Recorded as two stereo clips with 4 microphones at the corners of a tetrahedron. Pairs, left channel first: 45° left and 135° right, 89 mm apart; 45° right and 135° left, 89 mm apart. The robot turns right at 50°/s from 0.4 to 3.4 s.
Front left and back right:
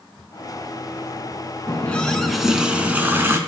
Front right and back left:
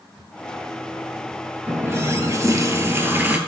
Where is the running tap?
100° left, 0.9 m; by 3.4 s 170° right, 0.9 m.